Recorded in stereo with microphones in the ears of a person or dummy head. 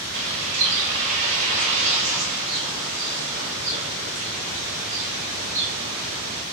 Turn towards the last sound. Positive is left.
turn(degrees=-40)  # may be behind; listen again after turning